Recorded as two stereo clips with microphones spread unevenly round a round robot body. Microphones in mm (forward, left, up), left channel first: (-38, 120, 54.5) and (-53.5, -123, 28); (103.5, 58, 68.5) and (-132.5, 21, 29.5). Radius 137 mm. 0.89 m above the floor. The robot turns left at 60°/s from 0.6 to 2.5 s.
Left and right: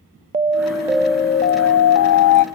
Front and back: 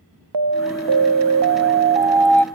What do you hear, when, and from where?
0.3 s an alarm: 160° right, 0.6 m; by 2.5 s 90° left, 0.6 m